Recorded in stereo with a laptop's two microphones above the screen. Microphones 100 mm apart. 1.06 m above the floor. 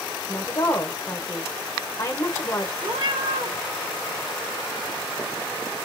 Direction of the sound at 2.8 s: 55° right (ahead or behind).